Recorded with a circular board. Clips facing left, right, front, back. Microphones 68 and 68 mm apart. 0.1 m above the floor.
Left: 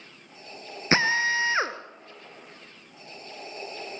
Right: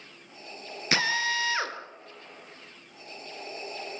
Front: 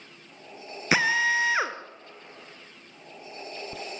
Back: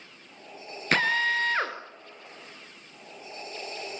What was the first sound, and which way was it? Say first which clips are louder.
A drill: left 4 dB, front 1 dB; 75° left.